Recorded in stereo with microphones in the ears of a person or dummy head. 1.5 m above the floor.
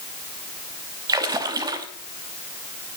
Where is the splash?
15° right (ahead or behind), 1.1 m.